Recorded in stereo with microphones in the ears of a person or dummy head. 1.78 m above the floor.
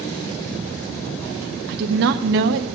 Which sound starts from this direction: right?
A woman speaking, at 1.7 s.